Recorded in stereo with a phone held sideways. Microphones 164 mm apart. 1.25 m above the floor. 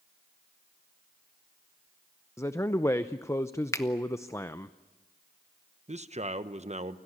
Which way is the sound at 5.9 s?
45° right (ahead or behind).